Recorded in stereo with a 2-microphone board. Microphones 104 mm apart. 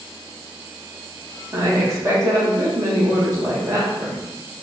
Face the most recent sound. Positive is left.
turn(degrees=-35)  # may be behind; listen again after turning